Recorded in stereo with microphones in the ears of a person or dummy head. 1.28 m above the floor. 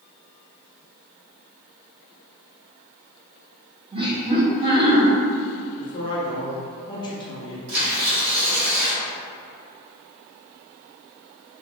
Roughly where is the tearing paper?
Right.